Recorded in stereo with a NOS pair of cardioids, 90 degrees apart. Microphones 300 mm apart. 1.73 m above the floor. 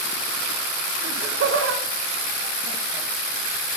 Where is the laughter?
50° right, 1.1 m.